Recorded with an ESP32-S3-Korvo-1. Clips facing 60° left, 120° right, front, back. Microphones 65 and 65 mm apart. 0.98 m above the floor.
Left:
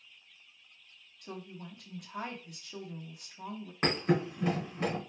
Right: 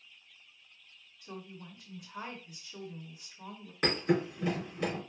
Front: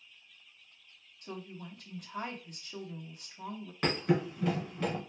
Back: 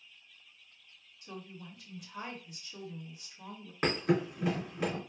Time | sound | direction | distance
1.2 | a woman speaking | 40° left | 1.2 m
3.8 | a thud | 105° left | 2.5 m